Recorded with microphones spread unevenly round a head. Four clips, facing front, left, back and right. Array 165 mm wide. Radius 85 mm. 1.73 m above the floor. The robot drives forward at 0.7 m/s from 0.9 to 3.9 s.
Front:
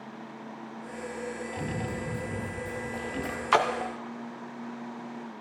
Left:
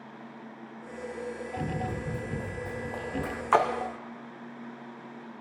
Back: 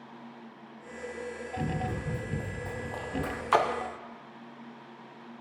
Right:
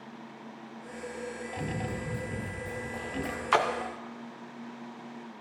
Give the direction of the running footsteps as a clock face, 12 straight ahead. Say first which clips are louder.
Left 2 dB, back 3 dB; 4 o'clock.